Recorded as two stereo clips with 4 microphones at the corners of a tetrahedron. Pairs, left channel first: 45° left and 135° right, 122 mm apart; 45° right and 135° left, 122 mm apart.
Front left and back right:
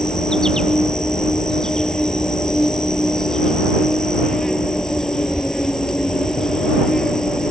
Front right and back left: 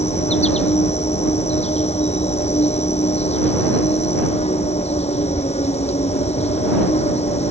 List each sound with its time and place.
0.0 s an insect: 40° right